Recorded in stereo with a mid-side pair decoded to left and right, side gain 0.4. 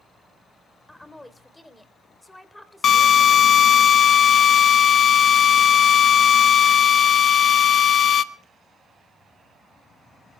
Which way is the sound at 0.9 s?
15° left.